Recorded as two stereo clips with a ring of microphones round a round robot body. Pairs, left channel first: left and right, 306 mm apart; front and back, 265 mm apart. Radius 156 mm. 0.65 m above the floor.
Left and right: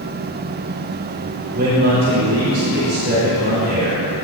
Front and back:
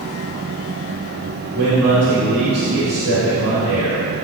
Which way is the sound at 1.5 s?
145° right.